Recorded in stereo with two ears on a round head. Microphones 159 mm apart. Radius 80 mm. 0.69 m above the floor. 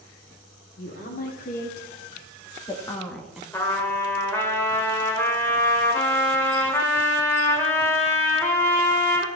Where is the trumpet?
15° left (ahead or behind), 1.8 m.